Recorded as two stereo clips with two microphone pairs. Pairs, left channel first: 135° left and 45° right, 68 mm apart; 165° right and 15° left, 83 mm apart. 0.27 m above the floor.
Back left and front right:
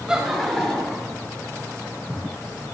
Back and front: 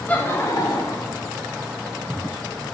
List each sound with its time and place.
0.1 s laughter: 110° right, 1.1 m; by 1.2 s 150° right, 2.0 m